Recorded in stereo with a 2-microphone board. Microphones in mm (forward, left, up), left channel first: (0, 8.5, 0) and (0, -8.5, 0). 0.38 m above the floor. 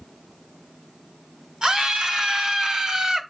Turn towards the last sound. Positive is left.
turn(degrees=-50)  # may be behind; listen again after turning